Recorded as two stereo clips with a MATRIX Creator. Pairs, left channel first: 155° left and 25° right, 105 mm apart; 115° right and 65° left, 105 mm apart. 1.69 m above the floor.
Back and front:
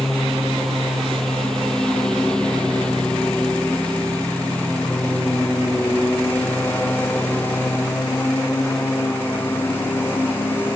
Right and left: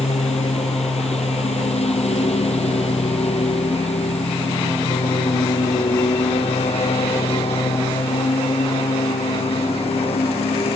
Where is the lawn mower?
115° right; by 10.8 s 135° right.